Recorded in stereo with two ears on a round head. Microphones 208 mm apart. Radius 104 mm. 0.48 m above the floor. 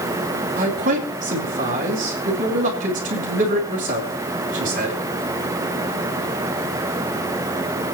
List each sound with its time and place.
0.6 s a man speaking: 35° right (ahead or behind), 5 m